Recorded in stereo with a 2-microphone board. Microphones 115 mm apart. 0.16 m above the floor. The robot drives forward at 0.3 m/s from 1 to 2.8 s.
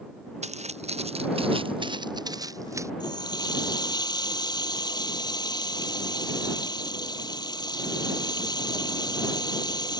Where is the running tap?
35° left (ahead or behind).